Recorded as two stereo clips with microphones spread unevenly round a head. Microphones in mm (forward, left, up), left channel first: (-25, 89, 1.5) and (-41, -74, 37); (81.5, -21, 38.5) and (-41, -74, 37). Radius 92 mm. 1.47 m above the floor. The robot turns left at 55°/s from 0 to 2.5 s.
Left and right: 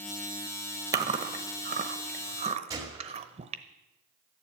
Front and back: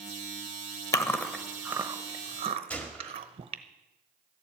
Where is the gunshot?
50° right, 1.5 m.